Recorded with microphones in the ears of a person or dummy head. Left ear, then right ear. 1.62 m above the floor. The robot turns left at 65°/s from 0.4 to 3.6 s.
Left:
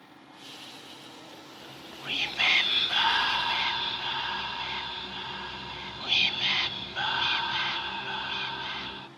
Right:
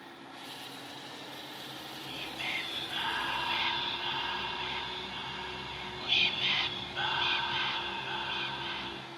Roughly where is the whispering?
Behind left.